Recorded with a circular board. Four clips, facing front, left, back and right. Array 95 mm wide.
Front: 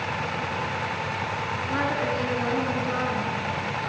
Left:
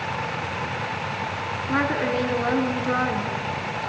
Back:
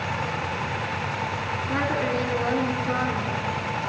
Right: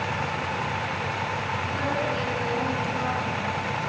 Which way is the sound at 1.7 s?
95° left.